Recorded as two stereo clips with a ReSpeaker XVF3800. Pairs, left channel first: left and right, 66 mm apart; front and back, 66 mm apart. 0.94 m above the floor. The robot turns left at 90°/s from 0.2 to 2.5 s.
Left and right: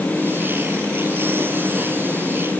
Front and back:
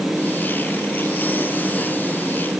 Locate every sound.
Only background noise.